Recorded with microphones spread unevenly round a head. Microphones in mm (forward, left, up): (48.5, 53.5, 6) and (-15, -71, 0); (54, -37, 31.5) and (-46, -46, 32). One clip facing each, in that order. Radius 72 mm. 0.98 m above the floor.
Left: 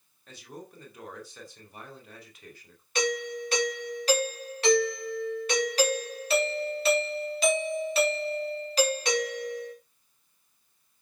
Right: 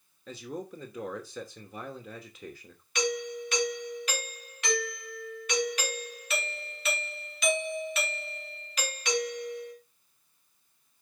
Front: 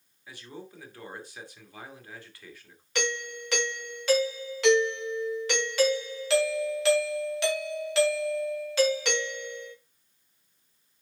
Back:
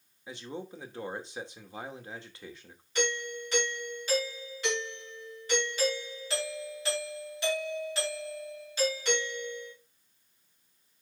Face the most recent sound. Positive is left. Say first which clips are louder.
# left 2 dB, even
turn(degrees=5)